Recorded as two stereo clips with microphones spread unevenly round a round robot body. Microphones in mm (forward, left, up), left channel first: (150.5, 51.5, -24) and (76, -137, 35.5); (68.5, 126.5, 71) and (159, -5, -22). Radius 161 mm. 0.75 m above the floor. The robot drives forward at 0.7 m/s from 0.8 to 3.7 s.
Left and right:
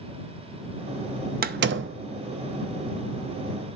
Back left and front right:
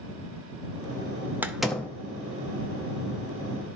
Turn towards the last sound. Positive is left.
turn(degrees=-170)